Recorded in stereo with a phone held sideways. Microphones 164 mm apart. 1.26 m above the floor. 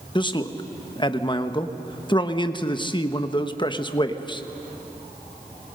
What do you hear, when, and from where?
0.1 s a man speaking: 30° left (ahead or behind), 1.0 m